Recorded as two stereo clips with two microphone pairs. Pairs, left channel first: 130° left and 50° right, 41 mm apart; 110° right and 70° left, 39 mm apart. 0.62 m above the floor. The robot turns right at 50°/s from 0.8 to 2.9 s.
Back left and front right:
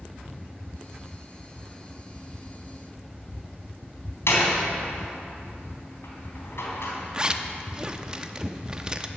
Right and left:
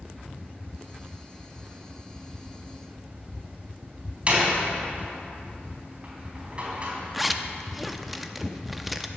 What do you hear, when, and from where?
4.3 s a door slam: 125° left, 3 m
7.1 s a zipper: 10° right, 0.7 m